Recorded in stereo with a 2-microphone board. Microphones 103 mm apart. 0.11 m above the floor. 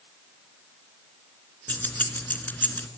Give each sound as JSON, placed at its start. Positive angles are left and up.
{"t": 1.7, "sound": "keys jangling", "side_deg": 15, "distance_m": 1.0}